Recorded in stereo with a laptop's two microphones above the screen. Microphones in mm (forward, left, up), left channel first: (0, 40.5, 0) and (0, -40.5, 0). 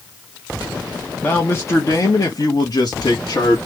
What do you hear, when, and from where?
1.2 s a man speaking: 25° left (ahead or behind), 0.9 m; by 3.6 s 55° left (ahead or behind), 1.6 m